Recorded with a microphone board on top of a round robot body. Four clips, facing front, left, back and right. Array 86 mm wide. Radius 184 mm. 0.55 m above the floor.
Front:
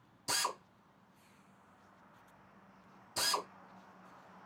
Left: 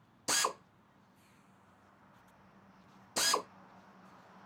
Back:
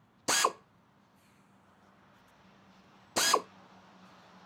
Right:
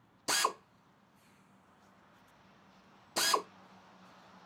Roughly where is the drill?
Behind.